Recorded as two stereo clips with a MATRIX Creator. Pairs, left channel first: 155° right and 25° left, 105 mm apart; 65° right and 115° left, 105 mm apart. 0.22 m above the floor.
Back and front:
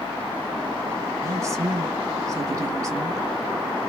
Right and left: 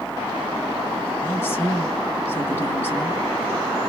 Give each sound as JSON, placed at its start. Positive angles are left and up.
{"t": 1.2, "sound": "a woman speaking", "azimuth_deg": -10, "distance_m": 1.5}